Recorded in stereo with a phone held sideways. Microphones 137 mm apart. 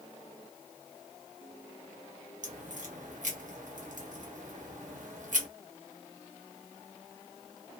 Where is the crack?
65° right (ahead or behind), 1.1 m.